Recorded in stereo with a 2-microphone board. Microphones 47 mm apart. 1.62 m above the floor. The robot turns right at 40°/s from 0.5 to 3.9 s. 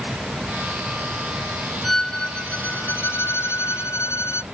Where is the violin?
Straight ahead; by 4.4 s 85° left.